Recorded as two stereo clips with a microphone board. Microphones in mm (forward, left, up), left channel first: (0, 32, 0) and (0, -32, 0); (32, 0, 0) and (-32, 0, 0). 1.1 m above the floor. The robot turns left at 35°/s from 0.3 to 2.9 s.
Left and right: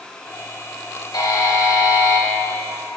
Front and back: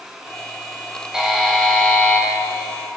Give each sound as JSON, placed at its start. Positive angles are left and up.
{"t": 1.1, "sound": "a buzzer", "azimuth_deg": 100, "distance_m": 3.0}